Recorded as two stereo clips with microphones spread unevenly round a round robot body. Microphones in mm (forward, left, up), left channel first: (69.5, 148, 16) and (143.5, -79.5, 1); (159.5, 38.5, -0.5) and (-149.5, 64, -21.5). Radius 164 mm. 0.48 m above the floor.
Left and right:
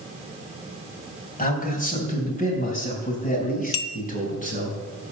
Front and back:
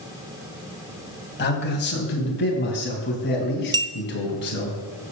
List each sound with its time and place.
1.4 s a man speaking: 55° left, 3.5 m; by 4.7 s 50° left, 5 m
3.7 s a clink: 105° left, 0.9 m